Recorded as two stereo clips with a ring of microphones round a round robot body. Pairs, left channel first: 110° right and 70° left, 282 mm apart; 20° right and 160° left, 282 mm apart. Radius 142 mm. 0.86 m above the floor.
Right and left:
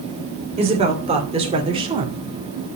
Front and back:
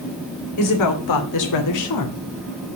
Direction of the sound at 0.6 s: Straight ahead.